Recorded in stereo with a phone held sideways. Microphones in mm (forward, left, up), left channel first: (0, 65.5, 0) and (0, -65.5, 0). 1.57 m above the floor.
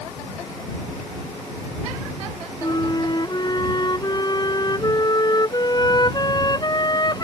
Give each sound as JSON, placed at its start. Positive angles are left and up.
{"t": 2.6, "sound": "a flute", "side_deg": 30}